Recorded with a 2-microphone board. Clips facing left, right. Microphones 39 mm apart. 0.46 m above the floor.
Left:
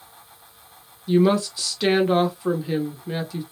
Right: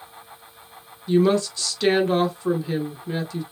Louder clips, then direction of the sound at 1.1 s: Even; 10° left (ahead or behind).